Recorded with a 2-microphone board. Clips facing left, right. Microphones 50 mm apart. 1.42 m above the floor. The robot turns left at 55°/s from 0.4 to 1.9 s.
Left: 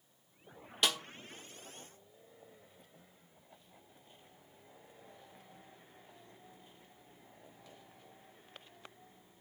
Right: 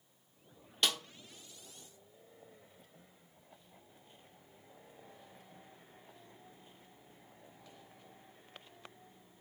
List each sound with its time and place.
0.8 s a snare drum: 5° left (ahead or behind), 1.1 m; by 1.0 s 10° left (ahead or behind), 1.1 m